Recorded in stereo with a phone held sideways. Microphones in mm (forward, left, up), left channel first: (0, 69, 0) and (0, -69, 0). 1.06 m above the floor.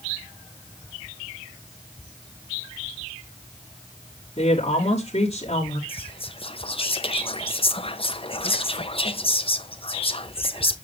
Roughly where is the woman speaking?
Left.